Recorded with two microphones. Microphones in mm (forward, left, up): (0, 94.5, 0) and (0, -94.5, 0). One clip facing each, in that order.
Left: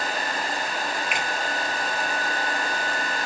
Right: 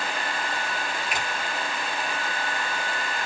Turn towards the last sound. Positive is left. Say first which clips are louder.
# left 1 dB
turn(degrees=-40)  # may be behind; listen again after turning